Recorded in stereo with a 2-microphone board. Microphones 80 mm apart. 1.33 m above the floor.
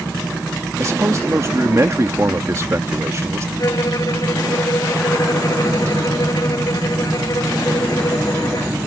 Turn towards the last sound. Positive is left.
turn(degrees=50)  # may be behind; listen again after turning